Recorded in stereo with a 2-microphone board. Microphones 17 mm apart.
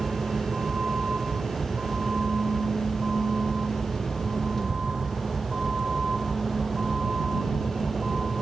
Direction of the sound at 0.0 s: 55° right (ahead or behind).